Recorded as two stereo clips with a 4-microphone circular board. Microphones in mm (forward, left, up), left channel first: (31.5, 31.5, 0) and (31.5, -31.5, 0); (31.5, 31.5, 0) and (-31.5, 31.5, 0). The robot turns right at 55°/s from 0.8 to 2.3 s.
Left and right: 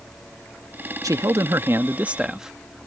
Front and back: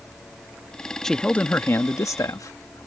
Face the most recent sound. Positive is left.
turn(degrees=-10)